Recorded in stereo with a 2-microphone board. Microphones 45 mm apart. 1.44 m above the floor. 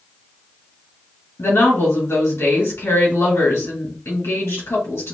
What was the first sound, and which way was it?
A woman speaking, 85° left.